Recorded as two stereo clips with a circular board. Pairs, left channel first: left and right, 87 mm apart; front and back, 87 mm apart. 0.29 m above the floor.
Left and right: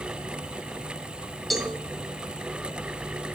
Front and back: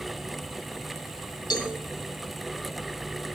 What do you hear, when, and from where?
1.5 s a cowbell: straight ahead, 2.5 m